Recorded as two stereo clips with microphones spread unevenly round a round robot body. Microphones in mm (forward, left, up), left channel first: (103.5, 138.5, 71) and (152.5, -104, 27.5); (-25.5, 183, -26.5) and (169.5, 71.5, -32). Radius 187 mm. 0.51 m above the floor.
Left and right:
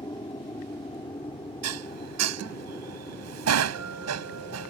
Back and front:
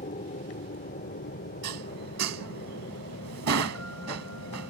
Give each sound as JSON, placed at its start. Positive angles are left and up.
{"t": 0.0, "sound": "an aircraft", "azimuth_deg": 170}
{"t": 1.6, "sound": "dishes clattering", "azimuth_deg": -75}